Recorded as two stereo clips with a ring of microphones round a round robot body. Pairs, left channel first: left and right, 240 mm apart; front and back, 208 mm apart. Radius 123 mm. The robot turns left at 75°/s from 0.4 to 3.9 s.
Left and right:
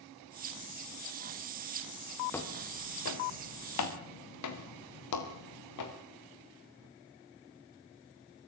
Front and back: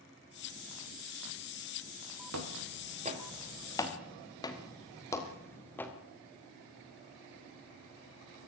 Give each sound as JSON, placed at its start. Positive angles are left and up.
{"t": 2.3, "sound": "footsteps", "azimuth_deg": 175, "distance_m": 4.5}